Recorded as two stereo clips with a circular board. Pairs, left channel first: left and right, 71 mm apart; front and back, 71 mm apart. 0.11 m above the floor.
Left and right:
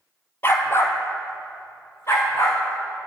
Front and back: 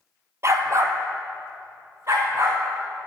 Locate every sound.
0.4 s a dog barking: 140° left, 0.8 m; by 2.6 s 135° left, 3 m